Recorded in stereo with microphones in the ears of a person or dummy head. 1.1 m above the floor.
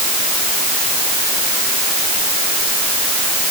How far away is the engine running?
No engine running in this recording.